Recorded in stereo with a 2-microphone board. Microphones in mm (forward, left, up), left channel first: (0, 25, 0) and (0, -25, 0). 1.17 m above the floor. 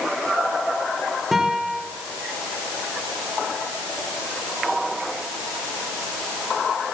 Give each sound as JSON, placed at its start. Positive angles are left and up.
{"t": 1.3, "sound": "a guitar", "side_deg": -5, "distance_m": 4.0}